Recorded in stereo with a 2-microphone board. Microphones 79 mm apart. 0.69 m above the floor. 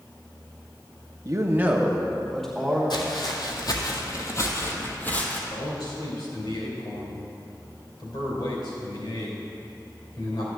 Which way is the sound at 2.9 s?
70° left (ahead or behind).